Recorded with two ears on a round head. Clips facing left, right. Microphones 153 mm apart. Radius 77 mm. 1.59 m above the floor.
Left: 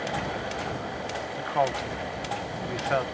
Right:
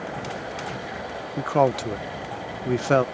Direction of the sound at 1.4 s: 60° right (ahead or behind).